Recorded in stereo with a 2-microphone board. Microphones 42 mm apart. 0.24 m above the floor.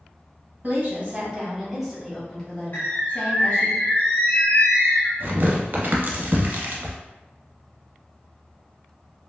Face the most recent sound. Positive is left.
turn(degrees=-50)  # may be behind; listen again after turning